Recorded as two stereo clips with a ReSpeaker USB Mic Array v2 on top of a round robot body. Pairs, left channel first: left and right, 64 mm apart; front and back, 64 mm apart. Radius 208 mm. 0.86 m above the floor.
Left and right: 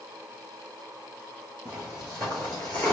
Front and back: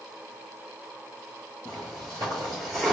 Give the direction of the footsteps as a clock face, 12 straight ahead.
1 o'clock.